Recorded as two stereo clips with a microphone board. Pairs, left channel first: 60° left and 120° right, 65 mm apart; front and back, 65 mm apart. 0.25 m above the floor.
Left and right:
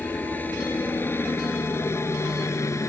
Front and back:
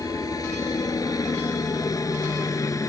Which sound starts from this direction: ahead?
A helicopter, at 0.0 s.